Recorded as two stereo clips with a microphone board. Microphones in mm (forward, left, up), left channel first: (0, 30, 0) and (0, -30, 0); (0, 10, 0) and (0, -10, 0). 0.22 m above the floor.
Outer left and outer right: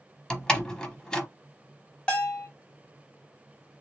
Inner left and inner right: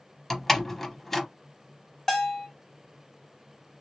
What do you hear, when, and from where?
0.3 s a door slam: 10° left (ahead or behind), 0.8 m
2.1 s a bell: 15° left (ahead or behind), 1.6 m